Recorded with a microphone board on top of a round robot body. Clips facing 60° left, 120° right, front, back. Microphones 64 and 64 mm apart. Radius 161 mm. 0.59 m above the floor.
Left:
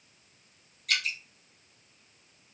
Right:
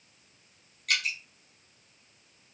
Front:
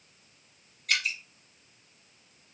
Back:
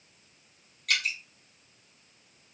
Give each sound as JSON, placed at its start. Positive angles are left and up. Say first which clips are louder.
{"t": 0.9, "sound": "dripping", "louder": "right 1 dB, even", "azimuth_deg": -155, "distance_m": 1.5}